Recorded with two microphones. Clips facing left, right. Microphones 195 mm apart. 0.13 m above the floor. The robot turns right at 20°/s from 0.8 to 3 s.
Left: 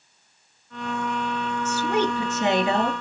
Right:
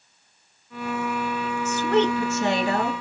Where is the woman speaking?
5° left (ahead or behind), 2 m; by 2.9 s 25° left (ahead or behind), 2 m.